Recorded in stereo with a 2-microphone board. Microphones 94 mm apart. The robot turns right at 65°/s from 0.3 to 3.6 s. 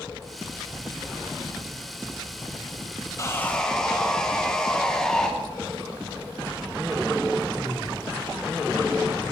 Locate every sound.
3.2 s sawing: 35° left (ahead or behind), 1.2 m; by 5.3 s 5° left (ahead or behind), 1.2 m